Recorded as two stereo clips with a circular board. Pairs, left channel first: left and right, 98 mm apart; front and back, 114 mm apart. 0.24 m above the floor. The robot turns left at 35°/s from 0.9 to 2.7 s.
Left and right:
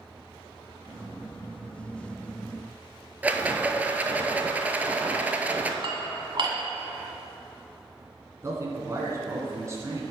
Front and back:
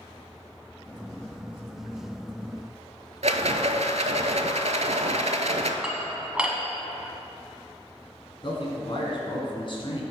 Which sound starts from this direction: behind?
A rattle, at 3.2 s.